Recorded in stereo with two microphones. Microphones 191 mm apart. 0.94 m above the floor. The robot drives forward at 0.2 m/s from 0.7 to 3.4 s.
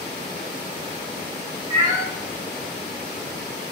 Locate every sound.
1.7 s a cat meowing: 15° right (ahead or behind), 0.8 m